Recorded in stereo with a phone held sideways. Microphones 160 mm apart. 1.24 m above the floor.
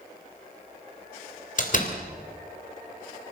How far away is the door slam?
About 3 m.